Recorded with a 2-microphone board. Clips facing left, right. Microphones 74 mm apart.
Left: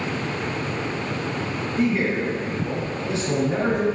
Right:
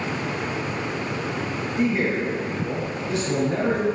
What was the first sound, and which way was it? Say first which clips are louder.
A man speaking: left 1 dB; 15° right (ahead or behind).